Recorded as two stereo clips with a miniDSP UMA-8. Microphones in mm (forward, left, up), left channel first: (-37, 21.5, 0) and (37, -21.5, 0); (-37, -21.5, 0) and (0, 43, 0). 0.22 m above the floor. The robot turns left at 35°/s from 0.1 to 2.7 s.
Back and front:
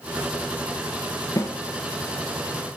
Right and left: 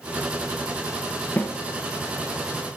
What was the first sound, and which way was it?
A snare drum, 175° right.